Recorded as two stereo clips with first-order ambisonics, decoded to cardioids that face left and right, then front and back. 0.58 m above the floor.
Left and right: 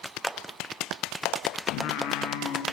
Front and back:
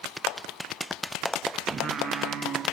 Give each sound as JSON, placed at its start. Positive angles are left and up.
{"t": 1.7, "sound": "singing", "azimuth_deg": 115, "distance_m": 3.0}